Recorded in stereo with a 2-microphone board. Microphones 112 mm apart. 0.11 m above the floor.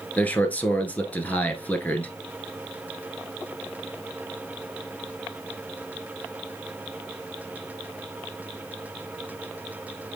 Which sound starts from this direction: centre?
A man speaking, at 0.2 s.